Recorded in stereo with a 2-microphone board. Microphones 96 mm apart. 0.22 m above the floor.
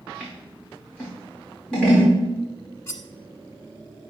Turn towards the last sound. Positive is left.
turn(degrees=30)  # may be behind; listen again after turning